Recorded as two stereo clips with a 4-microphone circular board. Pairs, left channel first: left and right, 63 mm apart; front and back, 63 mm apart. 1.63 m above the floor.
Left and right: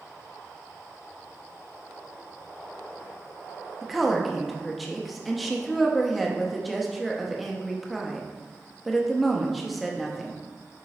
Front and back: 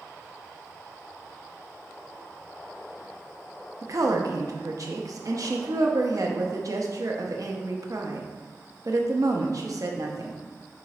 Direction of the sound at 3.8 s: Straight behind.